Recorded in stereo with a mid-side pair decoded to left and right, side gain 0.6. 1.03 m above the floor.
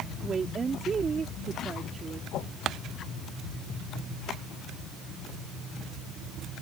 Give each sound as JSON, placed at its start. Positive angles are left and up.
{"t": 0.2, "sound": "a woman speaking", "azimuth_deg": -30}
{"t": 2.3, "sound": "a whoosh", "azimuth_deg": 60}